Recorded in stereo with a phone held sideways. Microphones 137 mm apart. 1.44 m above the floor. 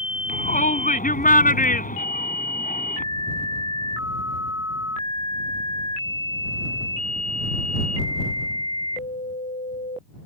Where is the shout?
85° left.